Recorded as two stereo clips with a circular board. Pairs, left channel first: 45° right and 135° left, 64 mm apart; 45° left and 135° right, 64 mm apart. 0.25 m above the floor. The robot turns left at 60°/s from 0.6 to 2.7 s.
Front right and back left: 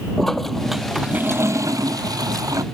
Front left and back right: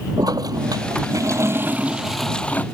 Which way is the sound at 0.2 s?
130° right.